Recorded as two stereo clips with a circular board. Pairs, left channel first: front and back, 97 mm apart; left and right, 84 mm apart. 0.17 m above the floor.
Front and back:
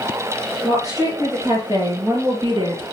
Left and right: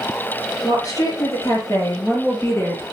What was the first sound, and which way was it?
A woman speaking, 130° left.